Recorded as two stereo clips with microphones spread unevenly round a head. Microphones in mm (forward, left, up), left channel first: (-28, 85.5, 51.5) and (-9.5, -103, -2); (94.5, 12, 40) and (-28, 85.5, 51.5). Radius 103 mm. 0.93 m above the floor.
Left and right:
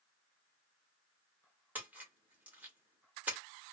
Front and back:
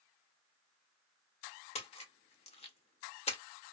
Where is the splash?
20° right, 1.3 m.